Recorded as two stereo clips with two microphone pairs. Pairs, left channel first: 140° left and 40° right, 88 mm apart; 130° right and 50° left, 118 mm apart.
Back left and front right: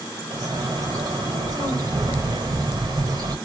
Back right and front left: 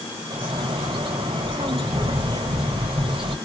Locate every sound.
0.3 s a bird: 5° left, 3 m